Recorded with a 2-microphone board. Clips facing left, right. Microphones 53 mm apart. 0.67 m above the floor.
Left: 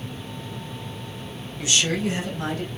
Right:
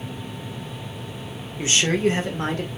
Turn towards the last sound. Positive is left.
turn(degrees=-40)  # may be behind; listen again after turning